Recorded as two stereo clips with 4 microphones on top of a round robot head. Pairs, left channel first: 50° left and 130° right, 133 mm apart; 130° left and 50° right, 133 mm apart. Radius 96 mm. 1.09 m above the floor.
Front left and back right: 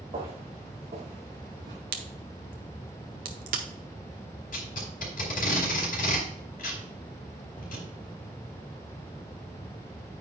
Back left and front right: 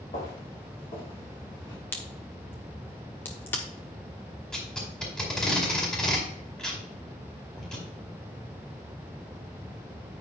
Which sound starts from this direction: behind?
Footsteps, at 0.1 s.